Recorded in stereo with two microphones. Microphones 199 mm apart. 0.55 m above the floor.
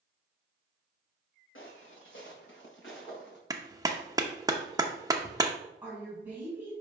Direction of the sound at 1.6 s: 75° left (ahead or behind).